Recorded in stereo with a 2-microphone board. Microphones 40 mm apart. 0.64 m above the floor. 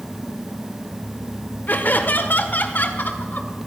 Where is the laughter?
50° left (ahead or behind), 1.6 m.